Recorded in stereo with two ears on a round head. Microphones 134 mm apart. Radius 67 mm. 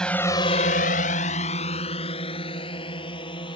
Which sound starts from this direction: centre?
A drone, at 0.0 s.